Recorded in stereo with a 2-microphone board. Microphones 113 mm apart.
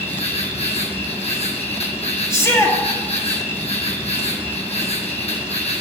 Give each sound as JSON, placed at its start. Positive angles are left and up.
{"t": 0.0, "sound": "an insect", "side_deg": 65, "distance_m": 2.0}
{"t": 2.3, "sound": "a shout", "side_deg": 25, "distance_m": 2.5}